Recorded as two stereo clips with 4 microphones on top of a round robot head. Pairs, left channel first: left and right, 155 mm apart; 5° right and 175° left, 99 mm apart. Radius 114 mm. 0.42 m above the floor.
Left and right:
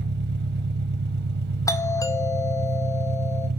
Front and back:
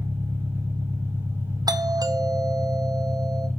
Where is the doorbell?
150° left, 1.5 m.